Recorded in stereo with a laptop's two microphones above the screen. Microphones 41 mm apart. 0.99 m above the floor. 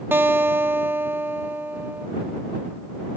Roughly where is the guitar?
Right.